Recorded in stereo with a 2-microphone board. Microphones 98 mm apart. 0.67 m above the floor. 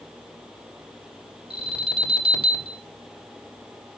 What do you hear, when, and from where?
1.5 s an alarm: 70° right (ahead or behind), 4.5 m